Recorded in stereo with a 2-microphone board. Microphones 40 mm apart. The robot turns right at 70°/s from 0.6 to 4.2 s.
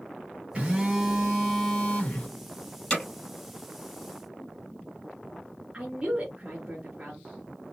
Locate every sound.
0.6 s a phone buzzing: 35° right, 1.9 m; by 2.3 s 80° left, 1.9 m
2.9 s hammering: 20° left (ahead or behind), 2.5 m; by 3.0 s 10° left (ahead or behind), 2.5 m
5.7 s a woman speaking: 30° right (ahead or behind), 3.5 m